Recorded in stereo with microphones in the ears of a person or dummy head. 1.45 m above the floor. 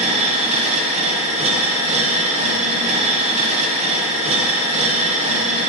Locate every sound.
0.0 s a machine running: 30° right (ahead or behind), 0.9 m